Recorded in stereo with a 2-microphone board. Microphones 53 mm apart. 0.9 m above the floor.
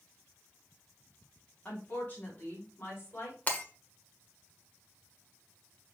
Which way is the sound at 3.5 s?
30° left (ahead or behind).